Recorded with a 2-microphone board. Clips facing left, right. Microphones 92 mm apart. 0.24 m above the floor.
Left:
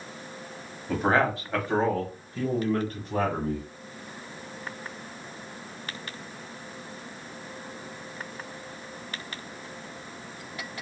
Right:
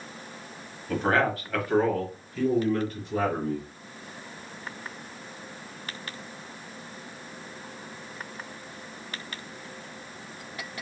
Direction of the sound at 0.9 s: 10° left (ahead or behind).